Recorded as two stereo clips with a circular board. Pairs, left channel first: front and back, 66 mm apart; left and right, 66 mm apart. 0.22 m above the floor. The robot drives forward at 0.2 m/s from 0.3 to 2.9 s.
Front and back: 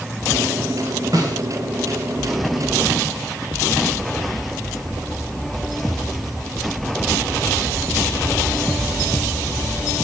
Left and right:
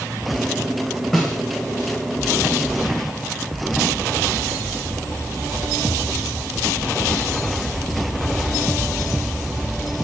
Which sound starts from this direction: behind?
A snare drum, at 1.1 s.